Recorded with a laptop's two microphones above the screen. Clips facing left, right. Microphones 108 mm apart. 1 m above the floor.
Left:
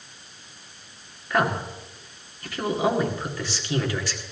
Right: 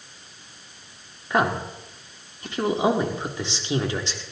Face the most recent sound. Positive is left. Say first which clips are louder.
# right 1 dB
turn(degrees=-20)  # may be behind; listen again after turning